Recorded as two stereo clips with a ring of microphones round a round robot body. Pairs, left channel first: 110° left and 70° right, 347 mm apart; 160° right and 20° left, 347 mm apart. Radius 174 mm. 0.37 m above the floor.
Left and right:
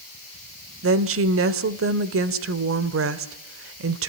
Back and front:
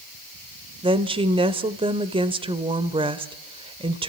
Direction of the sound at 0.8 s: 45° right.